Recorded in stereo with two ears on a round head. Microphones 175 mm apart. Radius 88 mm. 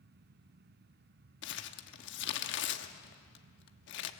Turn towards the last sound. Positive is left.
turn(degrees=65)  # may be behind; listen again after turning